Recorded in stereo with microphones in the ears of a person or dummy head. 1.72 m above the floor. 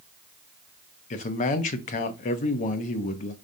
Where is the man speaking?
35° left (ahead or behind), 0.8 m.